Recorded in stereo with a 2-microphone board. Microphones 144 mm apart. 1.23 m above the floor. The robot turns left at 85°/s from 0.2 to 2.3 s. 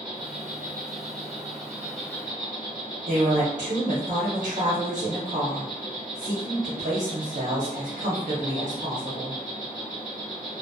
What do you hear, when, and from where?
0.0 s an insect: 30° right, 0.8 m; by 10.6 s 150° left, 0.8 m
3.1 s a woman speaking: 55° right (ahead or behind), 0.8 m